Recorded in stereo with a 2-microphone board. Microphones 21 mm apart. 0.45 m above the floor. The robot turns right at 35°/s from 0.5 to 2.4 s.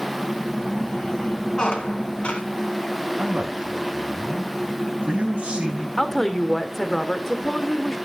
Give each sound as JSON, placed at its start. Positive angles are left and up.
{"t": 1.6, "sound": "a squeak", "side_deg": 45, "distance_m": 2.5}
{"t": 3.2, "sound": "a man speaking", "side_deg": -55, "distance_m": 3.0}
{"t": 6.0, "sound": "a woman speaking", "side_deg": 15, "distance_m": 1.4}